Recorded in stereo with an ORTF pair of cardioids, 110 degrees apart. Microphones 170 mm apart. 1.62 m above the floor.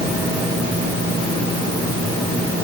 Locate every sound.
Only background noise.